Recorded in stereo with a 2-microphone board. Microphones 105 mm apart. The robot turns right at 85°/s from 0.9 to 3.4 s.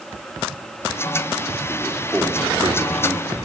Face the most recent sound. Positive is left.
turn(degrees=-60)